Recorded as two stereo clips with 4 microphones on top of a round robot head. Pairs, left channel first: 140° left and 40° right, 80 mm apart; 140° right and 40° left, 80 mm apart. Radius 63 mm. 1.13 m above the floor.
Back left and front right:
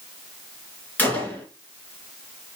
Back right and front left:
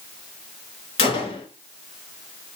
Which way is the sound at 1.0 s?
150° right.